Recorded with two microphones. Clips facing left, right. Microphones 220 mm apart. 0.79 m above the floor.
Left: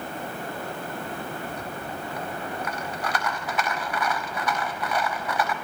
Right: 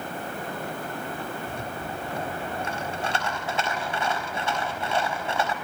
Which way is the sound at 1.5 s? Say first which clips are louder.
Even; 25° right (ahead or behind).